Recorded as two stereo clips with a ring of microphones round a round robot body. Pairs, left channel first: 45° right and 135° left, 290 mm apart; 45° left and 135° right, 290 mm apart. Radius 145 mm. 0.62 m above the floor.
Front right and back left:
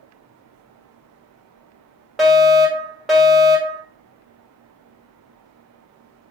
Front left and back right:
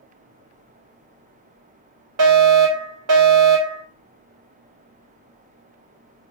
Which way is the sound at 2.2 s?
135° right.